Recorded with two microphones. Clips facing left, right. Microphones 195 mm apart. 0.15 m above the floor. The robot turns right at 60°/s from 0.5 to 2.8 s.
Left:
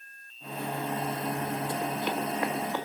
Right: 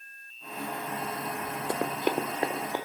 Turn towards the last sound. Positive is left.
turn(degrees=-15)  # may be behind; listen again after turning